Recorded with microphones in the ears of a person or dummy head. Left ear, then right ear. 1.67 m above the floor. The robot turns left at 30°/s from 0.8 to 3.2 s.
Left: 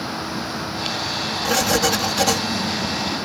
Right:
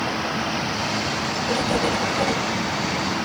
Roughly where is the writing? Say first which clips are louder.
Left 5 dB; left.